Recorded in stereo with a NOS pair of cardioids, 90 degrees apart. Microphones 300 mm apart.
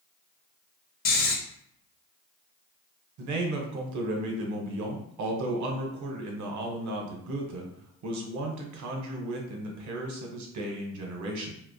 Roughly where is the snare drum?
No snare drum in this recording.